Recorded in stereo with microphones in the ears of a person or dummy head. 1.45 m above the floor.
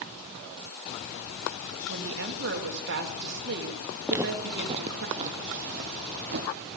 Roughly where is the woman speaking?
Right.